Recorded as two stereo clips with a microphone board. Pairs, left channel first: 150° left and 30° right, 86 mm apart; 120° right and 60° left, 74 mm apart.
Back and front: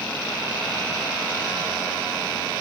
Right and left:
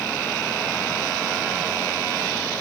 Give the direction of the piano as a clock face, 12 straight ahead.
I don't hear a piano.